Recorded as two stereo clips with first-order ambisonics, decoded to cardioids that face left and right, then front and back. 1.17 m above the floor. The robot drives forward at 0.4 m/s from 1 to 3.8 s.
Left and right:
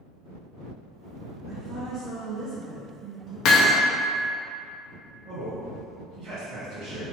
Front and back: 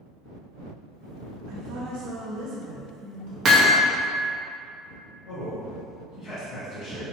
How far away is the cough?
I don't hear a cough.